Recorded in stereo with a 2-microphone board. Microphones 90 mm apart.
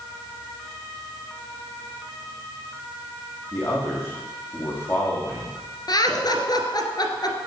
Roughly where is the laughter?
Left.